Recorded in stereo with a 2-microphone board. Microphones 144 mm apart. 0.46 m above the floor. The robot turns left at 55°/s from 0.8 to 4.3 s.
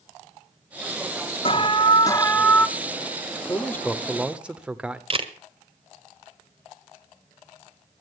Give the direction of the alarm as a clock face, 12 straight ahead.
10 o'clock.